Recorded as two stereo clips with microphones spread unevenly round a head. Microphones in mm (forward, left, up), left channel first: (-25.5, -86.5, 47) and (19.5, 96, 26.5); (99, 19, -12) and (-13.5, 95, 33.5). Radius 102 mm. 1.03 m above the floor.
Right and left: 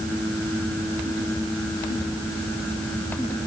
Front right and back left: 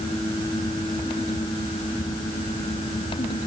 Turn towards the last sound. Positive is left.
No sound to turn to.